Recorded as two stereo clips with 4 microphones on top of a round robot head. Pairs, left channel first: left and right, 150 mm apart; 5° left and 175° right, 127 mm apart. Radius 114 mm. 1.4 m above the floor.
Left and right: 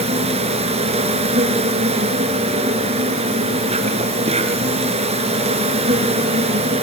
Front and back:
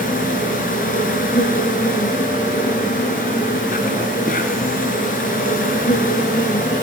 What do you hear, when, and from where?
0.0 s an insect: 45° right, 3 m